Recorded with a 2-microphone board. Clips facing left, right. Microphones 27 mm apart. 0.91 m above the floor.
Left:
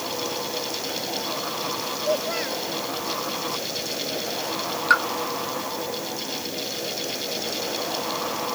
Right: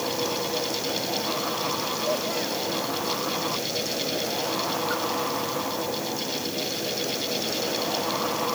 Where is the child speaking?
25° left (ahead or behind).